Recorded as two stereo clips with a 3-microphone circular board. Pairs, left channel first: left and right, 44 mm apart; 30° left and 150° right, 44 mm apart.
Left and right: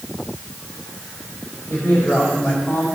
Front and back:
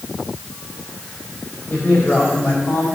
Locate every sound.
1.7 s a man speaking: 70° left, 3.5 m